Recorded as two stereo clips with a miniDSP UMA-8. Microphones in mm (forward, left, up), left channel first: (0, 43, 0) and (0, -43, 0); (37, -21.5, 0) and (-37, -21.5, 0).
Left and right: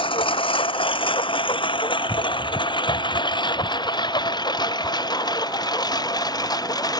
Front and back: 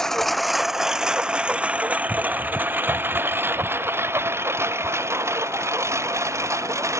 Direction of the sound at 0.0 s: 85° left.